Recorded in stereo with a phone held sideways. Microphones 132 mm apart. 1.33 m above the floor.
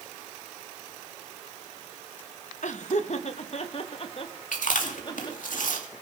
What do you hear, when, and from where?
2.6 s laughter: 65° left (ahead or behind), 1.3 m; by 5.5 s 35° left (ahead or behind), 2.5 m
4.5 s chewing: 80° left, 2.5 m